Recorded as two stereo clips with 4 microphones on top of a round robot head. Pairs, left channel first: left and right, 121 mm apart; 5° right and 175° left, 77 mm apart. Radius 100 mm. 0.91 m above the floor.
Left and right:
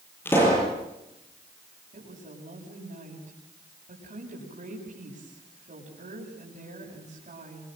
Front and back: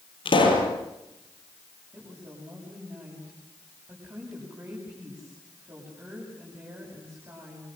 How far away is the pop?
About 8 m.